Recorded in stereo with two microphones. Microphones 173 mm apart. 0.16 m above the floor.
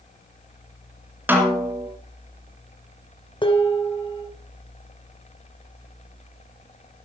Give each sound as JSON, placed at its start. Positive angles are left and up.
{"t": 1.3, "sound": "a snare drum", "side_deg": -10, "distance_m": 2.0}
{"t": 3.4, "sound": "dishes clattering", "side_deg": 30, "distance_m": 1.5}